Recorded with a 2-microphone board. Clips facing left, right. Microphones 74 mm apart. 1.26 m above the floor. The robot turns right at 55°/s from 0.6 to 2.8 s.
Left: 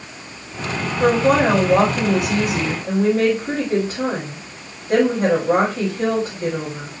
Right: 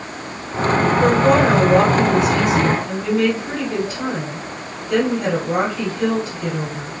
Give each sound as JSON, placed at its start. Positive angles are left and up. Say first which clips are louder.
{"t": 1.0, "sound": "a woman speaking", "louder": "left 1 dB", "azimuth_deg": 30, "distance_m": 2.5}